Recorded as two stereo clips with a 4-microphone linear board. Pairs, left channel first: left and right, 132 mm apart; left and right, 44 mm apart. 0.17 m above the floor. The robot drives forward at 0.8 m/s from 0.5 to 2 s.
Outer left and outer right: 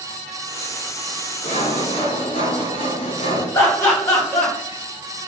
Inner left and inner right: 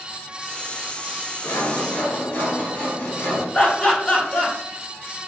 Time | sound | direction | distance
1.4 | sawing | 60° left (ahead or behind) | 0.9 m
3.5 | laughter | 25° left (ahead or behind) | 1.5 m